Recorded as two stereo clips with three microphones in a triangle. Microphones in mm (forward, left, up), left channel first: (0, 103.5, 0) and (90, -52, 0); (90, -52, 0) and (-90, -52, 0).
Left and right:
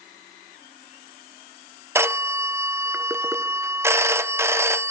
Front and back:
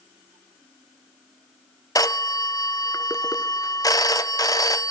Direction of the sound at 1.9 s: 15° right.